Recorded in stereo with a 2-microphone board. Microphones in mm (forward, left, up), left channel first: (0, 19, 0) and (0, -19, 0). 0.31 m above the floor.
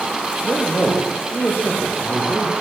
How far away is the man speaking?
About 6.5 m.